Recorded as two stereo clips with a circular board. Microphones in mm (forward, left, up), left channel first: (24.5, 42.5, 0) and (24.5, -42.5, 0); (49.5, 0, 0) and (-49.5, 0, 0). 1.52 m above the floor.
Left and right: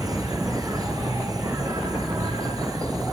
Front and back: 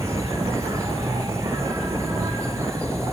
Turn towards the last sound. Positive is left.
turn(degrees=-130)